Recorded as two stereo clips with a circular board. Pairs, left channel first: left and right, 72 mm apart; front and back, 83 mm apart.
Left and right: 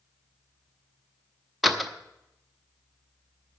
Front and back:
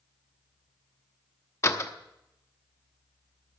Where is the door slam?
Straight ahead, 0.8 m.